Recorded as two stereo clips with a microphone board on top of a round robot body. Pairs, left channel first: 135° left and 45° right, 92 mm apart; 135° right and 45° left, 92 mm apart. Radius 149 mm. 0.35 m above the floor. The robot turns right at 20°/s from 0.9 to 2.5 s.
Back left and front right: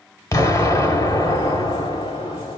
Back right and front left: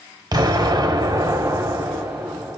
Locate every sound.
0.3 s an explosion: 80° left, 1.5 m; by 2.6 s 115° left, 1.5 m